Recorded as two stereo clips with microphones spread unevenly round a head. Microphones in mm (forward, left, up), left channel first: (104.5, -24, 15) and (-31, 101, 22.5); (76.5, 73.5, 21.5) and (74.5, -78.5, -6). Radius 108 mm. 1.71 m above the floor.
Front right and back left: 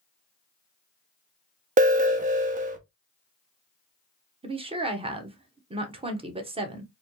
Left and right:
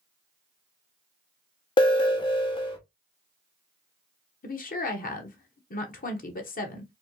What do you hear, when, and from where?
1.8 s an alarm: 150° left, 0.8 m
4.4 s a woman speaking: 80° left, 1.2 m